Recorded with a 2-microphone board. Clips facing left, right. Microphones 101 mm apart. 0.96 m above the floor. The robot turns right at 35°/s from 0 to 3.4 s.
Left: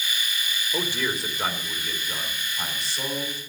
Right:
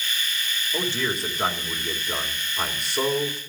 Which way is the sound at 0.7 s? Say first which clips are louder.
Right 1 dB; 160° left.